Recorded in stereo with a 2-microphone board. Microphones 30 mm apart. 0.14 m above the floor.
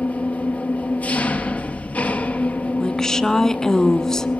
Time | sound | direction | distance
0.0 | an engine running | 70° left (ahead or behind) | 2 m
2.8 | a woman speaking | 20° left (ahead or behind) | 1.2 m